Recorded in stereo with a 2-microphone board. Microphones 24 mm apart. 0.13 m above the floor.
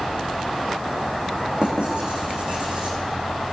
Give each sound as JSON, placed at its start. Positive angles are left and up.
{"t": 1.6, "sound": "writing", "side_deg": -55, "distance_m": 4.5}